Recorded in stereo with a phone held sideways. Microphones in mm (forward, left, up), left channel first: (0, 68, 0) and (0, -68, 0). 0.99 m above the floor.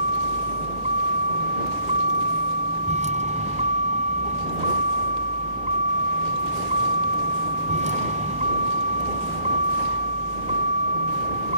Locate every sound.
0.0 s a vehicle: 65° right (ahead or behind)